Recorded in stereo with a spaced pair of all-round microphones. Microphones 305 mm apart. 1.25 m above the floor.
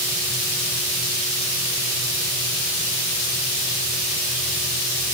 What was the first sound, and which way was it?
Only background noise.